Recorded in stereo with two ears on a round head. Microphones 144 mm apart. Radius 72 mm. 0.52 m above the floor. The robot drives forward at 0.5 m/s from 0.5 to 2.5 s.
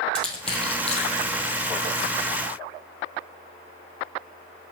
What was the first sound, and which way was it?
Crushing, 5° left (ahead or behind).